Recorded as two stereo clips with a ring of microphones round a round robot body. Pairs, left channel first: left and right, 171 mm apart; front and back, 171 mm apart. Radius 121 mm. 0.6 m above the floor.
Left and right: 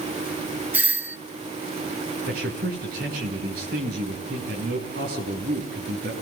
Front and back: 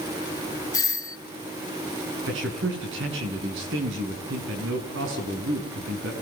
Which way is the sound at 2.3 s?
145° right.